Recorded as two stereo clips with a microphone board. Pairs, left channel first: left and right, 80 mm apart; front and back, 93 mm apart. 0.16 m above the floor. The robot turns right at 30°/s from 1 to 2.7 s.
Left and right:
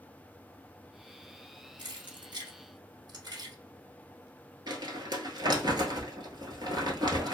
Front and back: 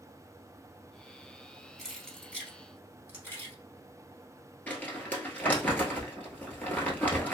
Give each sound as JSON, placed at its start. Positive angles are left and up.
{"t": 1.8, "sound": "keys jangling", "azimuth_deg": -90, "distance_m": 2.0}
{"t": 4.7, "sound": "crumpling", "azimuth_deg": -70, "distance_m": 1.1}